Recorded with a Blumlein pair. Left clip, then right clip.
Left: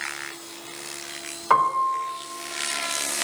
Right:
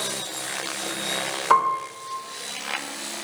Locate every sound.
1.5 s a piano: 5° right, 3.5 m